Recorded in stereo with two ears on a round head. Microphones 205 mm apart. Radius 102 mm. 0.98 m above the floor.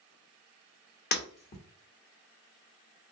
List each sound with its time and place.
1.1 s breaking glass: 45° left (ahead or behind), 0.9 m